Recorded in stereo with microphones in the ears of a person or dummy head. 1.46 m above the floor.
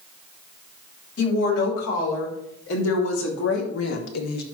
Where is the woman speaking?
90° left, 5.5 m; by 4.4 s 60° left (ahead or behind), 1.5 m.